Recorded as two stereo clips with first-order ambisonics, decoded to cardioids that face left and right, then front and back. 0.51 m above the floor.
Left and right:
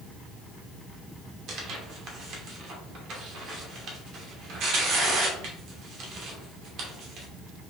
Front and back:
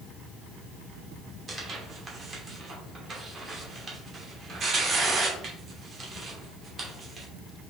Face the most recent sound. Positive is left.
turn(degrees=-120)